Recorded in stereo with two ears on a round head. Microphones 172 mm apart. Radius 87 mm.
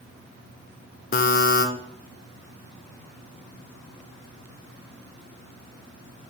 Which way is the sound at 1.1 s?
45° left (ahead or behind).